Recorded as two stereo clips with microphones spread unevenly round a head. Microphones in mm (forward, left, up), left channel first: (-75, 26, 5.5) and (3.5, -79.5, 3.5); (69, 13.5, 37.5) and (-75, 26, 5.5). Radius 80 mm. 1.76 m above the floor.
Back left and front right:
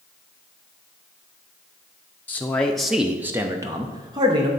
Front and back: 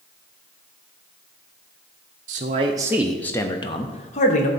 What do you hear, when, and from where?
2.3 s a man speaking: 165° right, 0.7 m; by 4.5 s 10° left, 1.1 m